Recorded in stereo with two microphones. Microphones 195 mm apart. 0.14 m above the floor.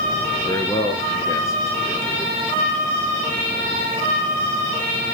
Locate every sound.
0.5 s a man speaking: 20° left (ahead or behind), 2.5 m; by 2.4 s 15° left (ahead or behind), 3.5 m